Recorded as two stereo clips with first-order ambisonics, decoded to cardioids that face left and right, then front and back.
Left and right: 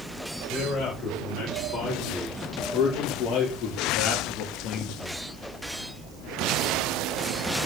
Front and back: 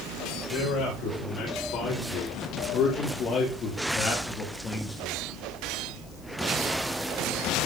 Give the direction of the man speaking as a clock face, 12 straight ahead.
11 o'clock.